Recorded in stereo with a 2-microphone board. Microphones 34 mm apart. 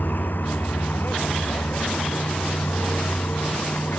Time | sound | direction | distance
0.0 | a vehicle | 65° left (ahead or behind) | ?